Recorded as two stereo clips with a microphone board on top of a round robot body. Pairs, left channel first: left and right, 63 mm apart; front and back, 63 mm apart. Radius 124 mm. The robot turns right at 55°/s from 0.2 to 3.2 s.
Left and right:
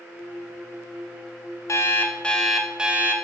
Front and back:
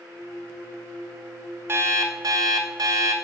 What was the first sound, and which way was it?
An alarm clock, 130° left.